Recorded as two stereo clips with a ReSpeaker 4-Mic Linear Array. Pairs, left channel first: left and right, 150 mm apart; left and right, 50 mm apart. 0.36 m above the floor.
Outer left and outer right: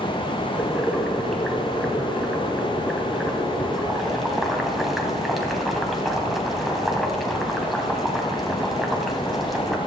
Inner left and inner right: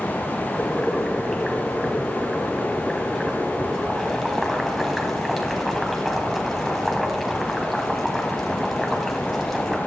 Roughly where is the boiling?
Centre.